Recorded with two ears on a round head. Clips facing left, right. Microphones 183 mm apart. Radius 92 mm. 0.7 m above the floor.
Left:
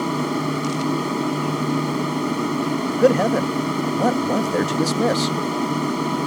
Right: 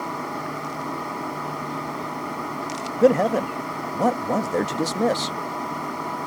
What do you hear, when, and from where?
0.0 s an aircraft: 45° left (ahead or behind)
3.0 s a man speaking: 5° left (ahead or behind)